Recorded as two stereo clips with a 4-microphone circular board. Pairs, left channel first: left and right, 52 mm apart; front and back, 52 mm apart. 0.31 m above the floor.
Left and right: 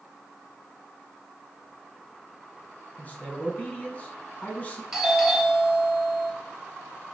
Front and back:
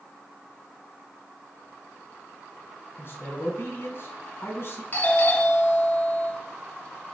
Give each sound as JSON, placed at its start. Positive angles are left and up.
{"t": 3.0, "sound": "a man speaking", "azimuth_deg": 35, "distance_m": 2.5}
{"t": 4.9, "sound": "a doorbell", "azimuth_deg": -5, "distance_m": 2.5}